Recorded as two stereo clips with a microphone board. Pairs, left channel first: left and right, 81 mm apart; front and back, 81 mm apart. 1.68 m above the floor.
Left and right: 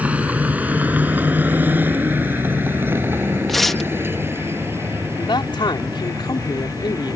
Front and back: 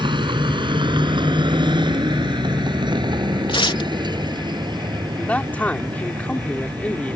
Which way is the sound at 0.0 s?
160° right.